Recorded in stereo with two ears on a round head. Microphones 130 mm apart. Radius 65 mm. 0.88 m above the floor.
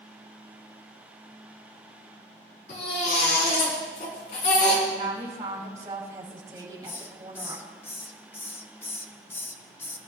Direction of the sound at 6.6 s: 15° left (ahead or behind).